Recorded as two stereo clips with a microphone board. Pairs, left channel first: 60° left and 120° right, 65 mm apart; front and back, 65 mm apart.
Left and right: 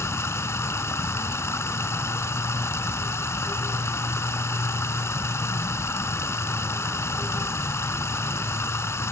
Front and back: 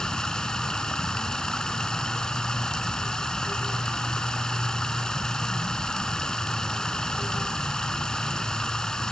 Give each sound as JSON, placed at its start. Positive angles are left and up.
{"t": 0.0, "sound": "running water", "azimuth_deg": 75, "distance_m": 1.6}